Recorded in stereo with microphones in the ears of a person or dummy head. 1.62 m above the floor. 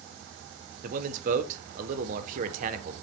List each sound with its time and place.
0.8 s a man speaking: 50° right (ahead or behind), 0.5 m